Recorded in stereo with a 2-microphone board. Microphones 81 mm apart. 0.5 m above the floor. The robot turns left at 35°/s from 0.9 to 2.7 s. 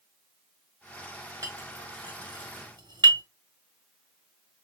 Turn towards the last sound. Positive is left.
turn(degrees=-70)  # may be behind; listen again after turning